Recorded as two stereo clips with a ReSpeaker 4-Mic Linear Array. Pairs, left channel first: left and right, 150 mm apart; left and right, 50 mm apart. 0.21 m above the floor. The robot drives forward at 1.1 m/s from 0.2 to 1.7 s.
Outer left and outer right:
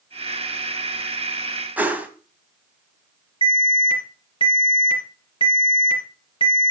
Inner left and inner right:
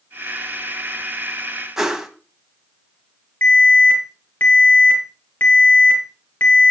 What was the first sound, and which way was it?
A whoosh, 10° right (ahead or behind).